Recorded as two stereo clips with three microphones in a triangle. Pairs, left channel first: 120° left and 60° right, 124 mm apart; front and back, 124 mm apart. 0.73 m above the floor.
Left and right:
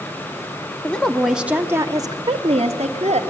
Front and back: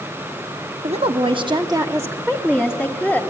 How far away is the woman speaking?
About 1.2 m.